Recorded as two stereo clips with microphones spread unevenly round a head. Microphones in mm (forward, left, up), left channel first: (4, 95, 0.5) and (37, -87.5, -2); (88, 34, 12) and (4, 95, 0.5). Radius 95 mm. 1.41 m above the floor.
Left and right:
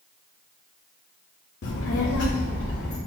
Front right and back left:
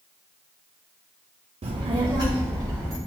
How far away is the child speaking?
About 0.6 m.